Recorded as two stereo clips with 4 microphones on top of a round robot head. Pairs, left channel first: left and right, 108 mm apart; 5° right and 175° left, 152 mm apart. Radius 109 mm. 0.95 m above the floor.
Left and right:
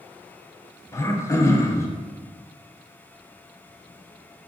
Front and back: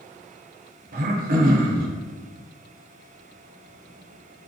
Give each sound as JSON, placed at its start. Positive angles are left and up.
{"t": 0.9, "sound": "throat clearing", "azimuth_deg": 150, "distance_m": 0.6}